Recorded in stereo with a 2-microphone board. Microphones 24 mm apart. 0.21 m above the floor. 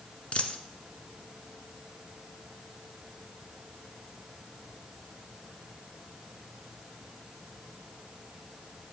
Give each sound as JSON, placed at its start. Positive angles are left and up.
{"t": 0.3, "sound": "a dropped coin", "side_deg": 55, "distance_m": 1.0}